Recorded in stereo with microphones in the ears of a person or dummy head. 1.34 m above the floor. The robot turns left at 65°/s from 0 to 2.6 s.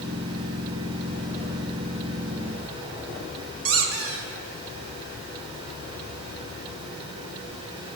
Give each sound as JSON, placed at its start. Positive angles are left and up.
{"t": 3.6, "sound": "a squeak", "side_deg": -75, "distance_m": 1.3}